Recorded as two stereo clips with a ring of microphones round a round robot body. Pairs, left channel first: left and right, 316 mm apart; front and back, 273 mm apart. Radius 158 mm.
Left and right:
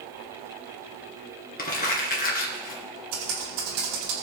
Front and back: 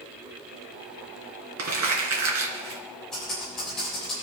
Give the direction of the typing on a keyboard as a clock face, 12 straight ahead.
3 o'clock.